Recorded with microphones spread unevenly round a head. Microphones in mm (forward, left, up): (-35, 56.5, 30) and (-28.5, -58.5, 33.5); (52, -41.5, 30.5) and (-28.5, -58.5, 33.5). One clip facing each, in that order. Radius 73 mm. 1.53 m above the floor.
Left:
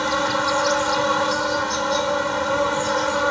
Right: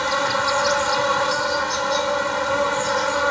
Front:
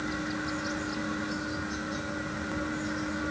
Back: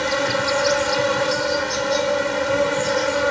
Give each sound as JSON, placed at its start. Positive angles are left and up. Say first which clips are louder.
{"t": 0.0, "sound": "an insect", "louder": "even, back 12 dB", "azimuth_deg": 180}